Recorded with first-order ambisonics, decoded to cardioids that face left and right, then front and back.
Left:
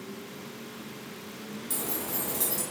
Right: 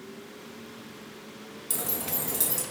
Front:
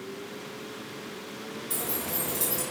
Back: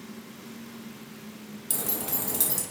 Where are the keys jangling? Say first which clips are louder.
Right 1 dB, back 1 dB; 150° right, 0.7 m.